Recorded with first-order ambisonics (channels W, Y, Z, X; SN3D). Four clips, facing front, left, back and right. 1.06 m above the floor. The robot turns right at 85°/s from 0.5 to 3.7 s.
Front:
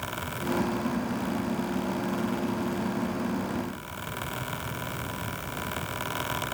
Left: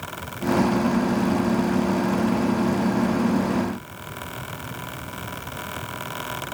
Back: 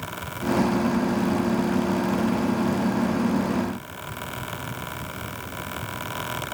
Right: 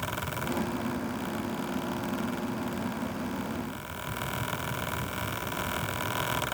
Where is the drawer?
I don't hear a drawer.